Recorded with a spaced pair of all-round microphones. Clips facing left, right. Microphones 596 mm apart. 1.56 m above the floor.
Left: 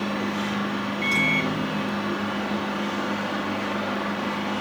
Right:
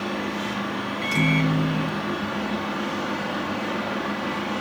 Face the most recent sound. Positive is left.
turn(degrees=-40)  # may be behind; listen again after turning